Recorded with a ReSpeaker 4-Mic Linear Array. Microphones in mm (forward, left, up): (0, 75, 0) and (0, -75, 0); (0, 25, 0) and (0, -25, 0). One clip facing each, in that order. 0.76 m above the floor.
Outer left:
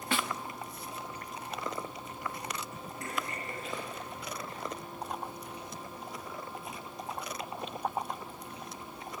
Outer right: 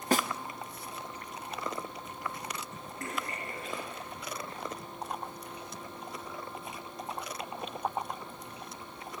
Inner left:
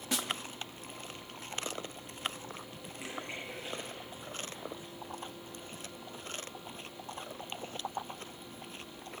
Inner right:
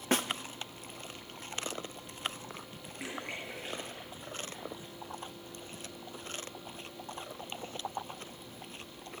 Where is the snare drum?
40° right (ahead or behind), 0.6 m.